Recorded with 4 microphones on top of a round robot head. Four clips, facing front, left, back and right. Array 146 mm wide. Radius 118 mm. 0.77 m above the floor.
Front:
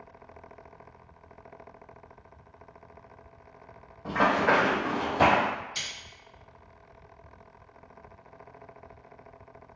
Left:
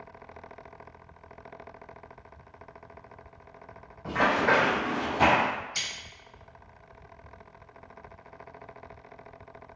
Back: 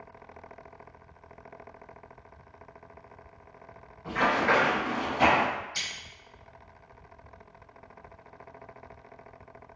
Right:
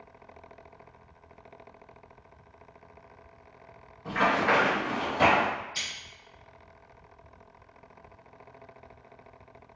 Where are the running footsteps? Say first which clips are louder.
Left 1 dB, front 2 dB; 45° left, 1.2 m; by 5.5 s 10° right, 1.3 m.